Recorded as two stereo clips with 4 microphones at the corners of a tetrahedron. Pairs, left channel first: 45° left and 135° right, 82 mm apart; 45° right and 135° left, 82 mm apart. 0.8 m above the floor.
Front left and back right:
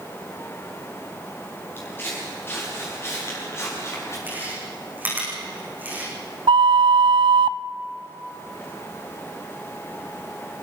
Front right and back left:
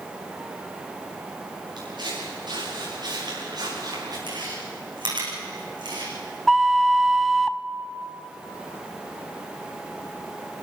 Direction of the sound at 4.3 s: 155° left.